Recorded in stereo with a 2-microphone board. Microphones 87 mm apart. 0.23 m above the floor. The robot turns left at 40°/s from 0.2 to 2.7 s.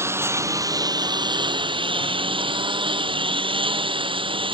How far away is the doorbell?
I don't hear a doorbell.